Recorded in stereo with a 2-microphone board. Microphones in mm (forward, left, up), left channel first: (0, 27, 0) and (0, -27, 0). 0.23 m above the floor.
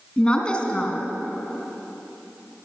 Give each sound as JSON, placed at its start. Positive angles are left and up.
{"t": 0.2, "sound": "a woman speaking", "side_deg": 20, "distance_m": 2.5}